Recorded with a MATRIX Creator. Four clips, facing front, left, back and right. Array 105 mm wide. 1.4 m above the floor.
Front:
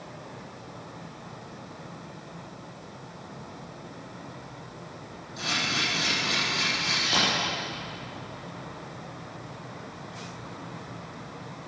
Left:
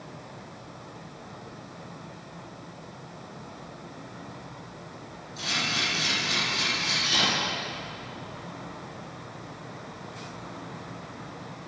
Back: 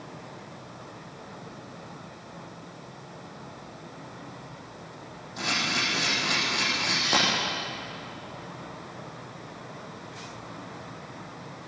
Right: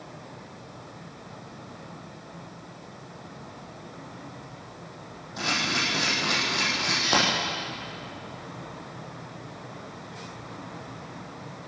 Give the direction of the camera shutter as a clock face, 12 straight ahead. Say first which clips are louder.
Right 3 dB, back 1 dB; 4 o'clock.